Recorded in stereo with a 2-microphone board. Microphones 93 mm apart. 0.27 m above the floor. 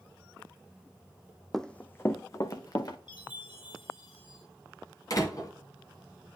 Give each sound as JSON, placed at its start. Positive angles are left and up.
{"t": 1.5, "sound": "running footsteps", "side_deg": 5, "distance_m": 0.6}
{"t": 3.1, "sound": "a chime", "side_deg": 60, "distance_m": 4.5}
{"t": 5.1, "sound": "a door slam", "side_deg": 40, "distance_m": 1.8}